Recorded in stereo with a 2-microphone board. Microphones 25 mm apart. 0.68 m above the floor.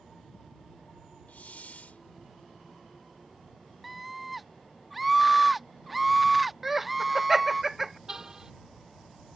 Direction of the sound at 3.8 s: 5° right (ahead or behind).